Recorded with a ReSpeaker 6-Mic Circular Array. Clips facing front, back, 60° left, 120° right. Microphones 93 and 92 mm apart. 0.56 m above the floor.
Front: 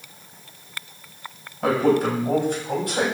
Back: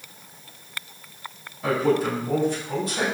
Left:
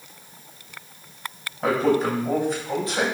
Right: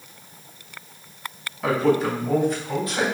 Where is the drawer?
No drawer in this recording.